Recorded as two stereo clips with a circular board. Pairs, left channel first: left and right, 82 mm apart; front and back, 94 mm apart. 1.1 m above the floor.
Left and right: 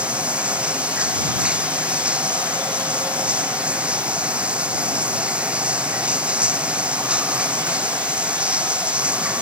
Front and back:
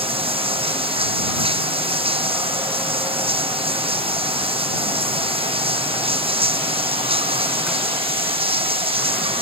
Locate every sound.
0.0 s running water: 165° right